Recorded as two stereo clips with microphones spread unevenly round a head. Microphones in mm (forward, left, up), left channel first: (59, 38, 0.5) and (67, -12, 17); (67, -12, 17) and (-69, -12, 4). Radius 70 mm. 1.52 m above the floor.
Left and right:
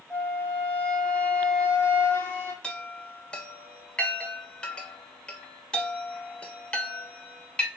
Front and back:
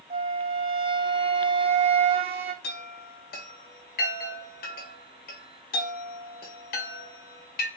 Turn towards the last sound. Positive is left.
turn(degrees=30)